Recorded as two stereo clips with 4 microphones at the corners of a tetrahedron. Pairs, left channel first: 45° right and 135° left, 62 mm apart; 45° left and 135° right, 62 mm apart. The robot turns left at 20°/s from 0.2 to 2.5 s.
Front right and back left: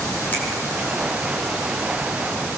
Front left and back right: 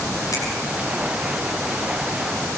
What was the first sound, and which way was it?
A finger snap, 15° left.